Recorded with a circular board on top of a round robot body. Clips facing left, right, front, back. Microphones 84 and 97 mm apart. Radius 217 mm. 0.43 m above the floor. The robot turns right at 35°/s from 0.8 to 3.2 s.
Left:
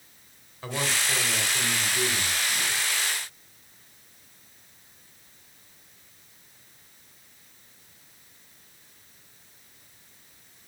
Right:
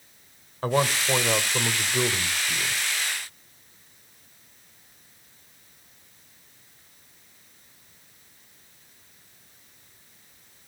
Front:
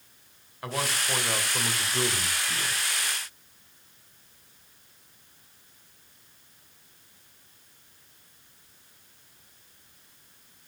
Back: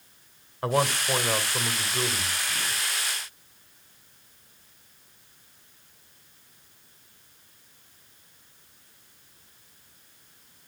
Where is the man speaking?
130° right, 3 m; by 2.8 s 60° right, 3 m.